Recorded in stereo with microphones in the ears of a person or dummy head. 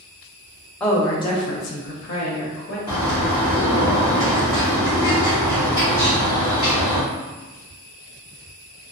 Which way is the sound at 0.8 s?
10° left (ahead or behind).